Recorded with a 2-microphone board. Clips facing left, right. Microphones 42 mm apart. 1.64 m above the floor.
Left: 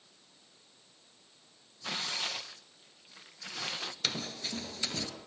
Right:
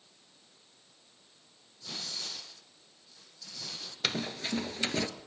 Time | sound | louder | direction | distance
1.8 | tearing paper | left 6 dB | 70° left (ahead or behind) | 1.5 m
4.0 | running footsteps | right 6 dB | 20° right (ahead or behind) | 1.9 m